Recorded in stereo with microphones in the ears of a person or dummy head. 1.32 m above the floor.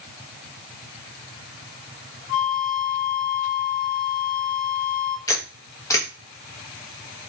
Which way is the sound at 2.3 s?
50° left (ahead or behind).